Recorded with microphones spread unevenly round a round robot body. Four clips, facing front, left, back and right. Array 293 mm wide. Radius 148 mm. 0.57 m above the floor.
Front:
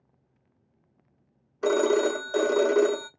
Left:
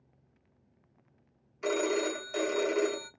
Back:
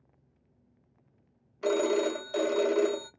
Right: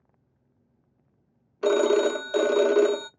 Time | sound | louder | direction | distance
1.6 | a phone ringing | right 9 dB, front 4 dB | 40° right | 0.5 m